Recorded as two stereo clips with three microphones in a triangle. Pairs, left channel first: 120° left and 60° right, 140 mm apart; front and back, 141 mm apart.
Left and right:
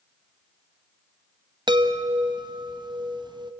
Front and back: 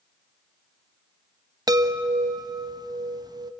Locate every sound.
1.7 s a chime: 115° right, 0.8 m